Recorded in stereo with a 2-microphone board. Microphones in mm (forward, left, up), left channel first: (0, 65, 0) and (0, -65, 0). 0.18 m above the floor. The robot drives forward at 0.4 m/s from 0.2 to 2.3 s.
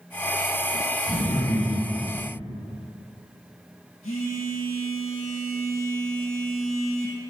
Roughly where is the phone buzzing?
Left.